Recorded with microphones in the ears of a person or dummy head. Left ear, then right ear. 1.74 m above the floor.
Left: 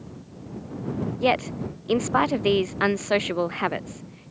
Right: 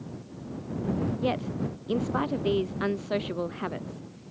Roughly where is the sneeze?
I don't hear a sneeze.